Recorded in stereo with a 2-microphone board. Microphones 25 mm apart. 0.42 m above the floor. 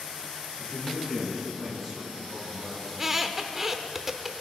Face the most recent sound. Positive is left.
turn(degrees=-5)  # may be behind; listen again after turning